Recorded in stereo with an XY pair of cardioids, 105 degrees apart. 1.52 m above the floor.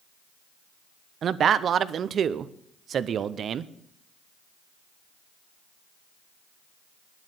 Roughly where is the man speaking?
Ahead right.